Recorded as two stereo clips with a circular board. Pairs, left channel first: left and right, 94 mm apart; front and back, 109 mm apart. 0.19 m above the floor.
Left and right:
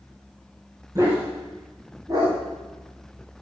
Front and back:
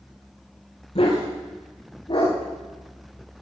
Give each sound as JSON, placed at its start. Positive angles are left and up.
{"t": 0.9, "sound": "a dog barking", "azimuth_deg": -35, "distance_m": 4.5}